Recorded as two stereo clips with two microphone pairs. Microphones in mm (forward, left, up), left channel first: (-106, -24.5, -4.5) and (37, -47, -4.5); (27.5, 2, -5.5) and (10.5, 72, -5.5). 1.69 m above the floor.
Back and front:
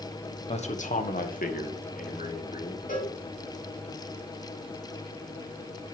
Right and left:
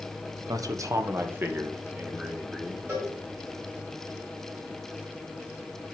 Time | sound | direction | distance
0.5 | a man speaking | 130° left | 1.1 m
2.9 | a cowbell | 155° left | 5 m